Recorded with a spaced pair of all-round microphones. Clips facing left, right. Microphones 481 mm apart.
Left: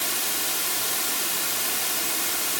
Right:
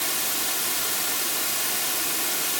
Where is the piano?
No piano in this recording.